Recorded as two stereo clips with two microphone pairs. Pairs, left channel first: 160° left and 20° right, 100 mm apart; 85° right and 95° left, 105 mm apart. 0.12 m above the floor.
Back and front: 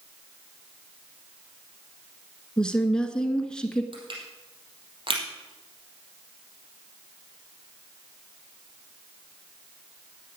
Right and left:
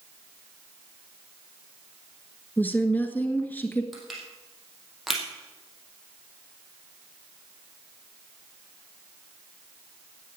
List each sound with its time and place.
2.6 s a woman speaking: 130° right, 1.5 m
3.9 s crushing: 5° left, 4 m